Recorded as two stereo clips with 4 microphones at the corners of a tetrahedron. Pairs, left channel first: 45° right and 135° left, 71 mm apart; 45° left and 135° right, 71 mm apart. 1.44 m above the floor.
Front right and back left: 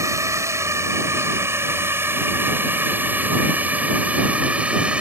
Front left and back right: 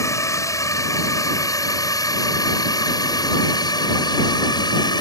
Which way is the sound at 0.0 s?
90° left.